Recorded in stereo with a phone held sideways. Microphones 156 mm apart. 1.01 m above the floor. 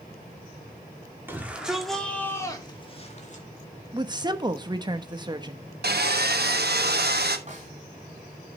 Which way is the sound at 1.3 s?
10° right (ahead or behind).